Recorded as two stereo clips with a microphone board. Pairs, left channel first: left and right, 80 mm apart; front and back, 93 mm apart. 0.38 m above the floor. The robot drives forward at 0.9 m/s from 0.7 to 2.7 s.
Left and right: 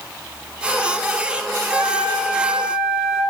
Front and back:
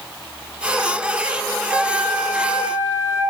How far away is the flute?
About 1.6 m.